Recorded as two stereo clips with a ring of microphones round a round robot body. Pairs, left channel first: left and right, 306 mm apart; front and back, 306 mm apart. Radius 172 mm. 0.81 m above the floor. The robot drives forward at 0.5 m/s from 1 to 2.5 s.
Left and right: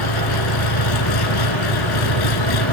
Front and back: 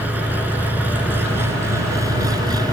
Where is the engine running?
95° left; by 2.7 s 100° left.